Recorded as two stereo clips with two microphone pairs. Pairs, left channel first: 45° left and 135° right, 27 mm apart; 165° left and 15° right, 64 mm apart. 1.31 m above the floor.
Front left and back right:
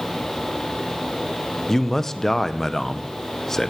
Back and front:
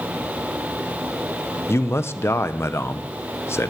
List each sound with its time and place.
1.7 s a man speaking: 120° left, 0.8 m